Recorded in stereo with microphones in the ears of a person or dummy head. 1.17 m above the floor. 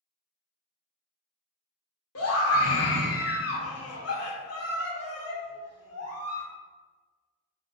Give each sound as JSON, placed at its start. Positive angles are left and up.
{"t": 2.1, "sound": "a scream", "side_deg": 70, "distance_m": 1.1}